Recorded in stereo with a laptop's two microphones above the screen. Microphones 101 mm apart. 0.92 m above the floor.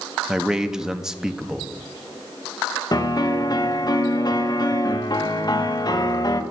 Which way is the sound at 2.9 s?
40° left (ahead or behind).